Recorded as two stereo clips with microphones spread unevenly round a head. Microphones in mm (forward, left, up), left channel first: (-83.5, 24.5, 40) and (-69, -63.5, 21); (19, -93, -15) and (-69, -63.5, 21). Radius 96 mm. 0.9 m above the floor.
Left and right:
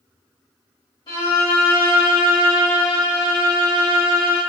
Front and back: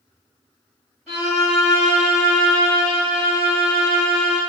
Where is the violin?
65° left, 1.5 m.